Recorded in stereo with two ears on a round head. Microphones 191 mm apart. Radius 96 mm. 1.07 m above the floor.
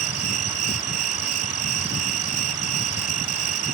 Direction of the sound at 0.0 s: 85° right.